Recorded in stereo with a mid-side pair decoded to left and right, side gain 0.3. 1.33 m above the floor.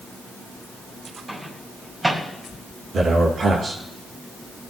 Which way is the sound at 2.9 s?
65° right.